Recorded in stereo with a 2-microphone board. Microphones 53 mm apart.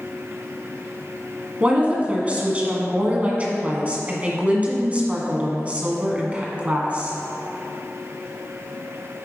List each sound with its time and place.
1.6 s a woman speaking: 25° right (ahead or behind), 1.5 m